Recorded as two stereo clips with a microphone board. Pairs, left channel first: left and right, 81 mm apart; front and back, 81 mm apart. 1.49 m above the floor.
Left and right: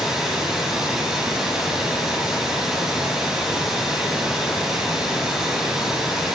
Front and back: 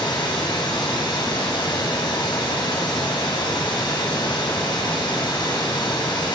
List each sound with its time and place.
0.0 s running water: 5° right, 9 m